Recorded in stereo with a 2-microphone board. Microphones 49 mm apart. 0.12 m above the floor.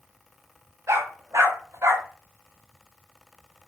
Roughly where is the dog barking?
Right.